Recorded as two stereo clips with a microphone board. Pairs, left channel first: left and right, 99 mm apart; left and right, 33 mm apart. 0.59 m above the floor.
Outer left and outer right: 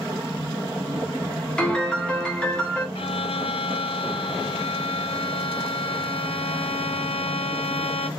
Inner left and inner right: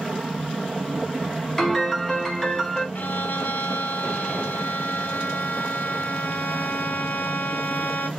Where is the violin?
70° left (ahead or behind), 0.6 m.